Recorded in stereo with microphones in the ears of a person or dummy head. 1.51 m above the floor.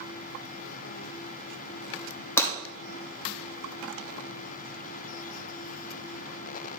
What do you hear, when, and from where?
2.4 s breaking glass: 10° left (ahead or behind), 3 m